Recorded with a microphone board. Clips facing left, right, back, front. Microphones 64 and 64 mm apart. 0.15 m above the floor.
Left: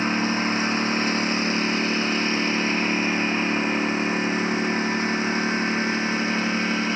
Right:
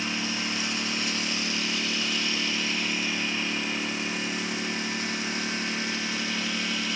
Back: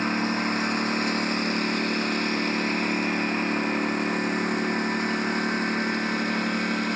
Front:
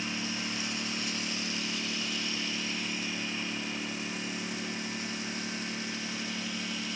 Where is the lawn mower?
140° left; by 7.0 s 145° left.